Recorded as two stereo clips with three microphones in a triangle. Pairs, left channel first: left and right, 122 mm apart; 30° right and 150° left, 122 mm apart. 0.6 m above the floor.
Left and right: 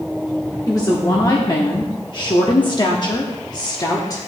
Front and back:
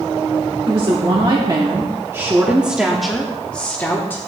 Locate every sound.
0.7 s a woman speaking: 140° left, 1.4 m; by 4.3 s 35° left, 1.6 m